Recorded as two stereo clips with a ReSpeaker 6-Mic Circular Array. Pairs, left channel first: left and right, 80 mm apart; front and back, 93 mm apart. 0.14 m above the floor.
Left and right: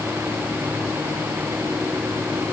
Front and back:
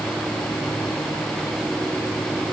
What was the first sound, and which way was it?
Only background noise.